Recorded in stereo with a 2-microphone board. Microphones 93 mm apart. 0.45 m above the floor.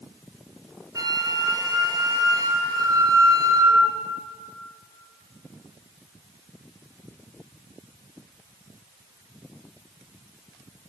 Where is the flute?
40° right (ahead or behind), 3 m.